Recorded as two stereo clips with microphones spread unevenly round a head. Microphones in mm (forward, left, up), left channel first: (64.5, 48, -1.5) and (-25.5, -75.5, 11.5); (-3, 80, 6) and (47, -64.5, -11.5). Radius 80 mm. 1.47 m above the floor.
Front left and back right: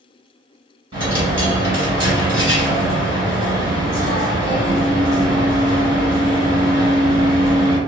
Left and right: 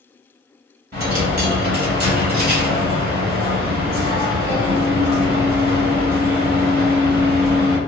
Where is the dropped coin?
80° right, 1.7 m.